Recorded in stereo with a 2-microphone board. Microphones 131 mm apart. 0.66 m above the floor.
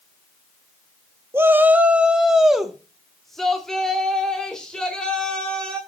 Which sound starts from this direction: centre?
A shout, at 1.3 s.